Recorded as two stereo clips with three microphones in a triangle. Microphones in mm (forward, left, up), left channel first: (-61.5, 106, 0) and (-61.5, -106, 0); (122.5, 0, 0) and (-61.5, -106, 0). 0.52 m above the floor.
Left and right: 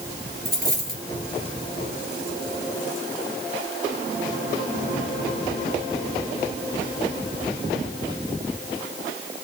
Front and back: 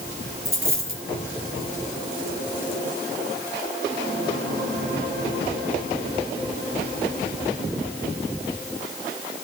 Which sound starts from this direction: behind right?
A dropped coin, at 0.5 s.